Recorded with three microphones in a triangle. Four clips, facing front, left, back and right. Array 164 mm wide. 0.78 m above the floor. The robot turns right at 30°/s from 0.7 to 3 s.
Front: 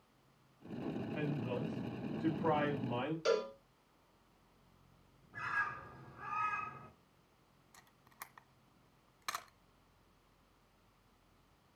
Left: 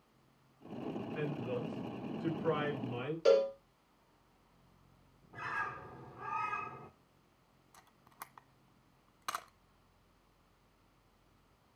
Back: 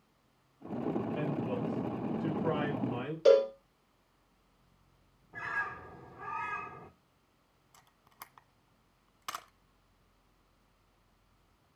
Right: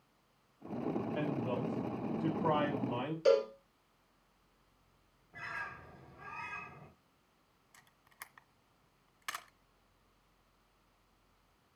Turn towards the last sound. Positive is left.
turn(degrees=115)